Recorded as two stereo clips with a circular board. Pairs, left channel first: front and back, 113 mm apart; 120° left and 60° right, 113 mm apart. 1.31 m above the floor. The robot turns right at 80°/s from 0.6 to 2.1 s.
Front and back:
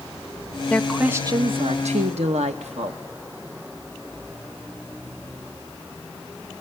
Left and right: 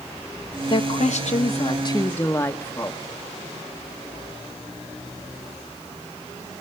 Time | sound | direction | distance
0.7 | a woman speaking | 75° left | 1.1 m